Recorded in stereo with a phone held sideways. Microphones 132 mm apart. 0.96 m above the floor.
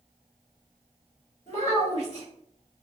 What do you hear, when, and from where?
1.5 s a child speaking: 55° left (ahead or behind), 1.3 m